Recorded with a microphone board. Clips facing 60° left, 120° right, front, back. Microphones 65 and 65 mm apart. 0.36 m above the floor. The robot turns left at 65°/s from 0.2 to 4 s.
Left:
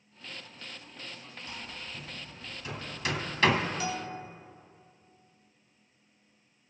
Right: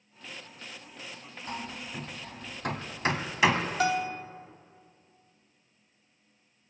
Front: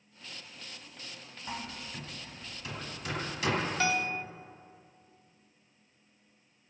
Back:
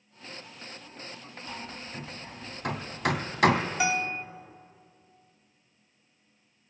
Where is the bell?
105° right, 0.6 m; by 4.2 s 115° right, 0.6 m.